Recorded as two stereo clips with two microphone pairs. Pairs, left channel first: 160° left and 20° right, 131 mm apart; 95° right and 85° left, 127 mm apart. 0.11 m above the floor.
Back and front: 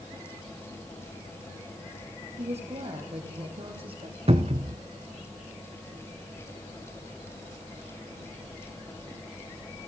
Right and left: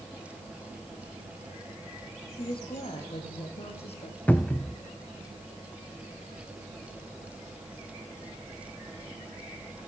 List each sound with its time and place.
2.4 s a woman speaking: 50° right, 4.5 m; by 4.2 s 65° right, 5 m
4.3 s a cupboard door: 25° right, 0.9 m